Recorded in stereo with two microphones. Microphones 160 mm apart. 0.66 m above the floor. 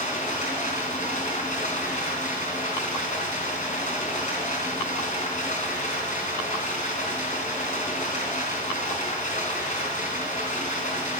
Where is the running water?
50° left (ahead or behind), 3.5 m.